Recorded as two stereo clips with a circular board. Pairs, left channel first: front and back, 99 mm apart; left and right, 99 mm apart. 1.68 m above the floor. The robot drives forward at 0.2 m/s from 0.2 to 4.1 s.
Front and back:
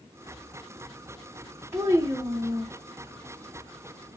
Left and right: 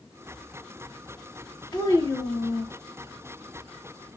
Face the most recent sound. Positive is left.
turn(degrees=145)